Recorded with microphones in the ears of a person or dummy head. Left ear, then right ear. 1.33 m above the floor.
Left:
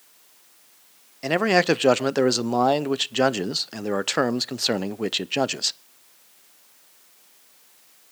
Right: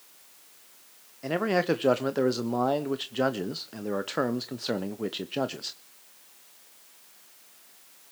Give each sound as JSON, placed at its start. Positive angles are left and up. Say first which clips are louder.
{"t": 1.2, "sound": "a man speaking", "louder": "left 6 dB", "side_deg": 55, "distance_m": 0.7}